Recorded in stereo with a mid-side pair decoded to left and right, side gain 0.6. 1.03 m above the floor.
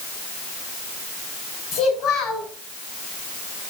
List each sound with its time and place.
1.7 s a child speaking: 50° left, 2.5 m